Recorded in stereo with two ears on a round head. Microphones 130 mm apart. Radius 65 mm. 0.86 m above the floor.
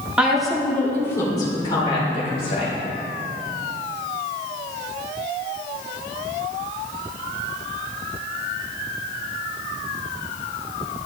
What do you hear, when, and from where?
0.2 s a woman speaking: 10° right (ahead or behind), 2.5 m; by 2.7 s 45° left (ahead or behind), 4.5 m